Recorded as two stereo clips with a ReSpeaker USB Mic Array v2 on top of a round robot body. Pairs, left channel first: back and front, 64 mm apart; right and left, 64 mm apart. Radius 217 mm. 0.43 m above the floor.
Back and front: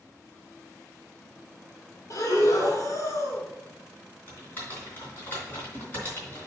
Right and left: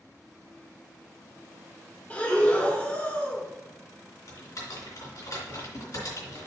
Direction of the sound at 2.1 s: 155° right.